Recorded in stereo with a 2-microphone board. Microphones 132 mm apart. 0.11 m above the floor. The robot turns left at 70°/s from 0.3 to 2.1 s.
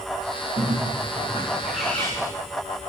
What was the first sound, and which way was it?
A bird, 95° right.